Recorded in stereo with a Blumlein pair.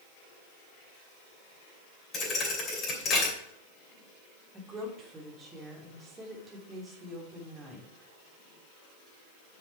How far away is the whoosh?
I don't hear a whoosh.